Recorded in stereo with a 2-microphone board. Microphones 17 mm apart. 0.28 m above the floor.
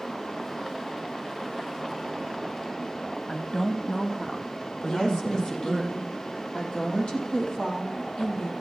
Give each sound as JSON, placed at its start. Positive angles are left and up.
{"t": 3.3, "sound": "a woman speaking", "side_deg": 40, "distance_m": 1.5}
{"t": 4.8, "sound": "a woman speaking", "side_deg": 55, "distance_m": 8.0}